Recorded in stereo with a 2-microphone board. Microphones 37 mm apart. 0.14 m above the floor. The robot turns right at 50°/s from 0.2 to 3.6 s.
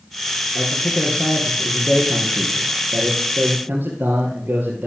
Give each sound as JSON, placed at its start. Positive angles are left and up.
{"t": 0.6, "sound": "a man speaking", "azimuth_deg": 130, "distance_m": 2.5}